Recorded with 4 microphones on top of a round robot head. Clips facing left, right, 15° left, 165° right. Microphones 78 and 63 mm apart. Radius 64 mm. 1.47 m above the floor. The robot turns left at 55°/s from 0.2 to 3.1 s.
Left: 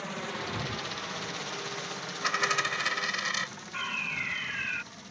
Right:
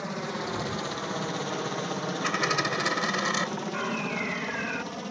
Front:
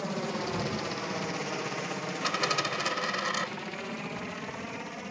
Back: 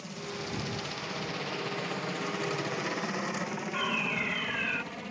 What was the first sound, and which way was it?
A helicopter, 20° right.